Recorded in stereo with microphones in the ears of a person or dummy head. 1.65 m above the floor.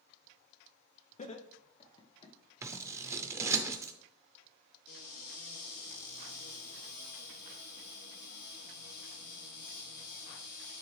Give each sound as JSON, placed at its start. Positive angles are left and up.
{"t": 1.2, "sound": "laughter", "side_deg": 40, "distance_m": 0.8}
{"t": 2.6, "sound": "scissors", "side_deg": -15, "distance_m": 0.6}
{"t": 4.9, "sound": "a cupboard door", "side_deg": 60, "distance_m": 1.7}